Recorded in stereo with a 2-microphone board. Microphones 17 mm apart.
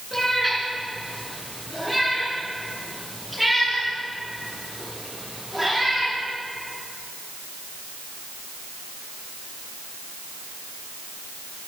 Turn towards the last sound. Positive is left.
turn(degrees=-20)  # may be behind; listen again after turning